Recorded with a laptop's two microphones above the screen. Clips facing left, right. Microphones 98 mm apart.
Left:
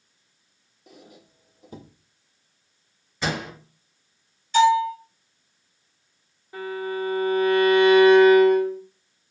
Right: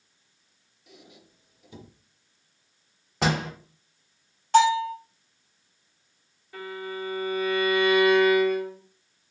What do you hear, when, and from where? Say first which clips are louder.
0.9 s a squeak: left 3 dB; 40° left (ahead or behind), 0.5 m
3.2 s a door slam: right 2 dB; 80° right, 2.5 m
4.5 s a bell: left 2 dB; 60° right (ahead or behind), 2.5 m
6.5 s a violin: left 6 dB; 25° left (ahead or behind), 1.2 m